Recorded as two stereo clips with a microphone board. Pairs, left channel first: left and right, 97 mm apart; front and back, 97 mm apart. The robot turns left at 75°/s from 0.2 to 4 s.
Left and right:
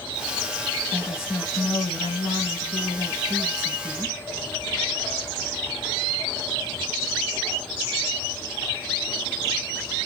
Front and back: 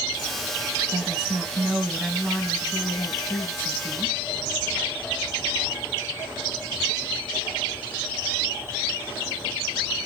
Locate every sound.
0.9 s a woman speaking: 175° left, 3.5 m; by 4.2 s 55° right, 3.5 m